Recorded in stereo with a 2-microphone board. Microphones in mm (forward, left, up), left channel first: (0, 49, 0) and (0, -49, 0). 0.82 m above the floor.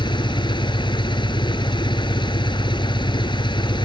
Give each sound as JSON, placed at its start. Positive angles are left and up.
{"t": 0.0, "sound": "an engine running", "side_deg": 50}